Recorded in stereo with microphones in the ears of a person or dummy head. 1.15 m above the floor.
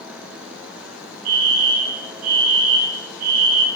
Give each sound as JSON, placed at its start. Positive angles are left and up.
{"t": 1.2, "sound": "a fire alarm", "side_deg": -45, "distance_m": 3.5}